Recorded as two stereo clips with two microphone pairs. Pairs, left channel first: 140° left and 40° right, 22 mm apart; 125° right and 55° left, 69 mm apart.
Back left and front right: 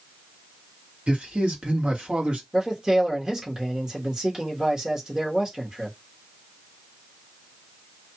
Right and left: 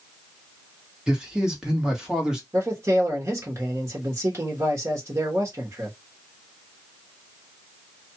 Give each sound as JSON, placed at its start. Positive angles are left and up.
{"t": 1.1, "sound": "a man speaking", "azimuth_deg": -25, "distance_m": 1.4}
{"t": 2.5, "sound": "a man speaking", "azimuth_deg": 10, "distance_m": 1.2}